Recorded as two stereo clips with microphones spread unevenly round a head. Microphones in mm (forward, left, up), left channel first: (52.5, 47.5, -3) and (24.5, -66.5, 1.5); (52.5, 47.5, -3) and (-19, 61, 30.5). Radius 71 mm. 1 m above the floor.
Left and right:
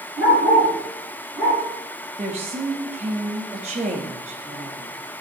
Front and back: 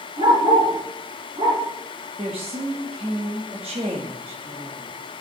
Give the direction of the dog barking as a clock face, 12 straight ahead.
6 o'clock.